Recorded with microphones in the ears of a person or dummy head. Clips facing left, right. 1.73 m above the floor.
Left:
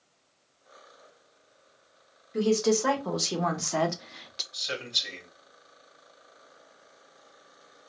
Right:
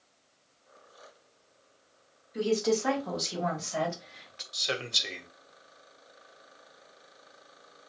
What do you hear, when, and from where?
2.3 s a woman speaking: 65° left (ahead or behind), 1.6 m; by 4.4 s 55° left (ahead or behind), 0.5 m
4.5 s a man speaking: 60° right (ahead or behind), 1.0 m